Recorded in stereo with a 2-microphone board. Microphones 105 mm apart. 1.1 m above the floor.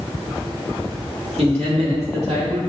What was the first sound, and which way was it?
A man speaking, 70° right (ahead or behind).